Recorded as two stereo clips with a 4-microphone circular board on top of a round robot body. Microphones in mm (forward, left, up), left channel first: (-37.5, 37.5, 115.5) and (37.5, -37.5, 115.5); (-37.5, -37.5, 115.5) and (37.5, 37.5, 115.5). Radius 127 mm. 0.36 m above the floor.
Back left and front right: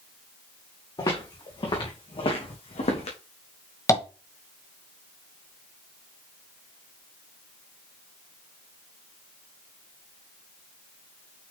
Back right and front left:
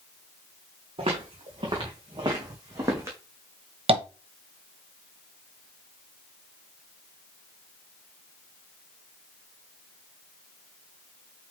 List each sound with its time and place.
1.0 s footsteps: 85° left, 3 m; by 3.2 s 110° left, 2 m
3.9 s tapping: 75° left, 1.3 m